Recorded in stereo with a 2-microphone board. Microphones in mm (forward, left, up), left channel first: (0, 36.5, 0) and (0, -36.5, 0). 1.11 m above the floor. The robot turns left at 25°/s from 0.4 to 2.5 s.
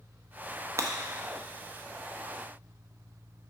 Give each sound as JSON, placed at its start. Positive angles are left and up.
{"t": 0.8, "sound": "breaking glass", "side_deg": -45, "distance_m": 0.7}